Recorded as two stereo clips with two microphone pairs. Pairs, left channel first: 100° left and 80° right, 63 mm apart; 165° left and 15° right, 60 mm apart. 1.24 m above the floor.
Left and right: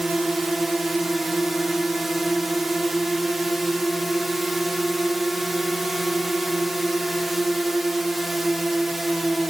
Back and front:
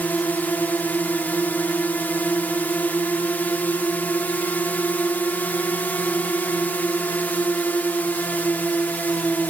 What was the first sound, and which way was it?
A drone, 165° right.